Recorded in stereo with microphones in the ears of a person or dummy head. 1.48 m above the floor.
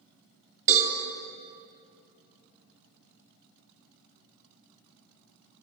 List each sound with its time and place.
0.7 s a cowbell: 40° right (ahead or behind), 2 m